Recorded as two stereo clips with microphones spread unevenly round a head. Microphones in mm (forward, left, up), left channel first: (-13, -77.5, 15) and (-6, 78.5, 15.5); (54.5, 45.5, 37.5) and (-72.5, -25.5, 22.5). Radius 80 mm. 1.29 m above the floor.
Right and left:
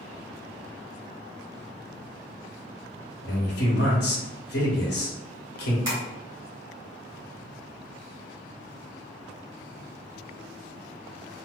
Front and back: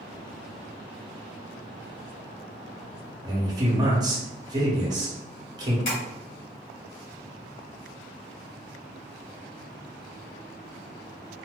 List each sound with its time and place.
3.2 s a man speaking: 90° right, 1.2 m
5.8 s tapping: 25° left, 1.6 m